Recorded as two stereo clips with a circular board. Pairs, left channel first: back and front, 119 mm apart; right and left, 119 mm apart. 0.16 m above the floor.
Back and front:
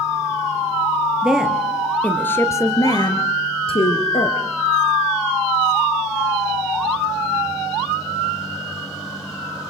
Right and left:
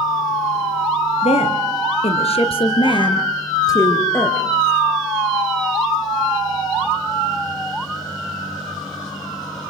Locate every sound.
1.2 s a woman speaking: 85° right, 3 m; by 4.4 s 160° right, 3 m